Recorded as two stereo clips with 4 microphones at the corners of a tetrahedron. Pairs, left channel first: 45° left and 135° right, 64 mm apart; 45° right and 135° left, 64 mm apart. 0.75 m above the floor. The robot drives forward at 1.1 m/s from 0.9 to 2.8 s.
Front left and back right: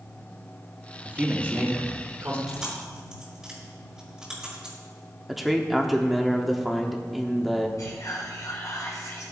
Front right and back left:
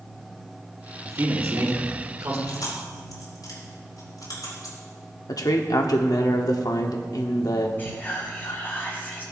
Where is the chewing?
50° right, 4.5 m; by 4.8 s 55° right, 4.5 m.